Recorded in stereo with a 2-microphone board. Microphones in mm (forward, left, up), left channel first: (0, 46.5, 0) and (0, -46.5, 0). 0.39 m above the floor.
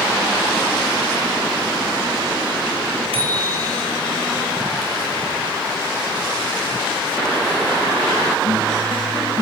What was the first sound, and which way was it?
A bicycle bell, 80° right.